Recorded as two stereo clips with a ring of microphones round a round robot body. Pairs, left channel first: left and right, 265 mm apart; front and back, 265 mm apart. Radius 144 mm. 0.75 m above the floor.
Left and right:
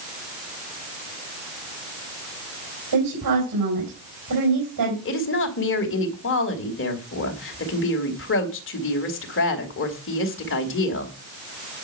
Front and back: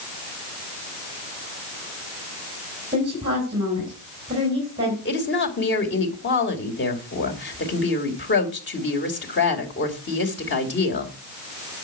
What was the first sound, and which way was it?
A woman speaking, 110° right.